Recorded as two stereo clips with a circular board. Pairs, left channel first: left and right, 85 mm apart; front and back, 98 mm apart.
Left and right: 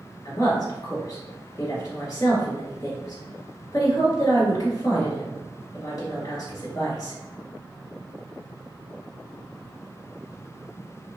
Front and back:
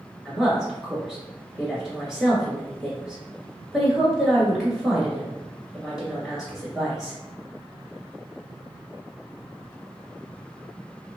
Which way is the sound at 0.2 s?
95° left.